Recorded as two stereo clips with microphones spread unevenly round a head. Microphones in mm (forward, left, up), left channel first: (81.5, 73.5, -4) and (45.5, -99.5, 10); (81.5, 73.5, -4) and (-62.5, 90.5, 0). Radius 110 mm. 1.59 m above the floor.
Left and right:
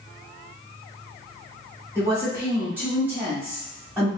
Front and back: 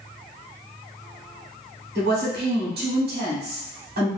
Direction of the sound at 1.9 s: 175° left.